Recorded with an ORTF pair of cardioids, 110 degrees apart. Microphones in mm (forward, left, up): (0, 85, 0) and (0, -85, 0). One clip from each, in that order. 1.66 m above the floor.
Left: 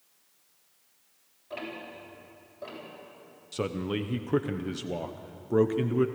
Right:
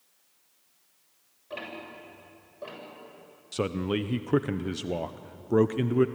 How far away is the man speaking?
About 0.7 m.